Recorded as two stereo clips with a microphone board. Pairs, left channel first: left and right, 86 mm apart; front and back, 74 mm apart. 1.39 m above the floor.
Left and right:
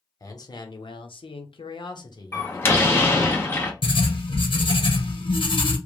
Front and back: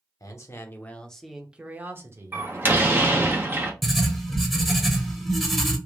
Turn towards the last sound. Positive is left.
turn(degrees=90)